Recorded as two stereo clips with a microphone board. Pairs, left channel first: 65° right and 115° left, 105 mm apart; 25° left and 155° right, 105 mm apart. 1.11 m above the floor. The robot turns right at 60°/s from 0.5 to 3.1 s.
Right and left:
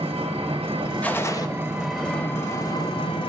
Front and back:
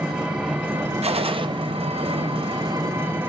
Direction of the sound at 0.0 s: 120° left.